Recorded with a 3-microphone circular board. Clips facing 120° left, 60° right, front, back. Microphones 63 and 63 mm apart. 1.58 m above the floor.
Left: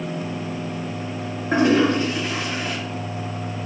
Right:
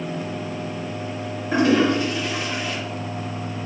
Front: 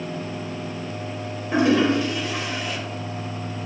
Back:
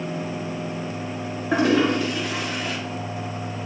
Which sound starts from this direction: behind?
A toilet flushing, at 1.5 s.